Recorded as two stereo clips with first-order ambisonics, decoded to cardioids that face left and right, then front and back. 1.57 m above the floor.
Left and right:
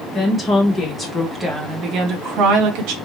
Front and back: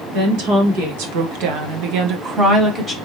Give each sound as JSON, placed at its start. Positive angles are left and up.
{"t": 0.1, "sound": "a woman speaking", "azimuth_deg": 170, "distance_m": 2.5}